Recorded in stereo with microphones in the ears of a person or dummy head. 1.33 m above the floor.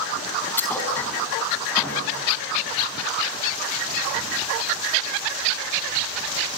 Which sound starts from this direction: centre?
A thud, at 0.6 s.